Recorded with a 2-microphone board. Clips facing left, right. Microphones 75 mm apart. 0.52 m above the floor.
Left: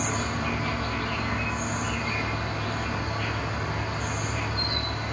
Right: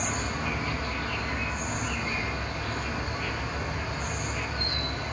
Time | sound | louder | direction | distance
0.0 | an insect | left 2 dB | 65° left (ahead or behind) | 1.1 m